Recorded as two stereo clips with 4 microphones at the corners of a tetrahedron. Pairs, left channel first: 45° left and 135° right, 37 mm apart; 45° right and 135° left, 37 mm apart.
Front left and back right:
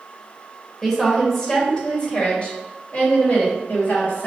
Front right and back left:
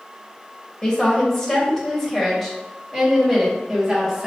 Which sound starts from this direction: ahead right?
A woman speaking, at 0.8 s.